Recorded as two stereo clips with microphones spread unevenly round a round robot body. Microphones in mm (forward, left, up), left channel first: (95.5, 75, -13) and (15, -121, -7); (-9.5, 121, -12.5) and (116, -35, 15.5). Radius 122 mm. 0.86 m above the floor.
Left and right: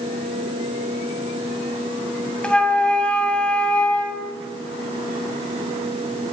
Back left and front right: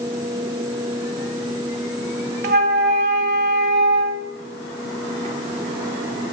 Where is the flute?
20° right, 1.7 m.